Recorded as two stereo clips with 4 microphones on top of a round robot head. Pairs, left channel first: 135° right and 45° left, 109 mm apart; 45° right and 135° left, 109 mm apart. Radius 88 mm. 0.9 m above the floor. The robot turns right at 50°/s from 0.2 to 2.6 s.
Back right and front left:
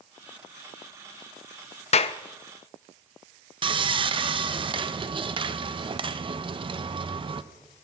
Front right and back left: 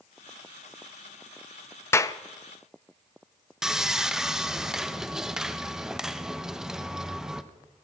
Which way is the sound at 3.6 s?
50° left.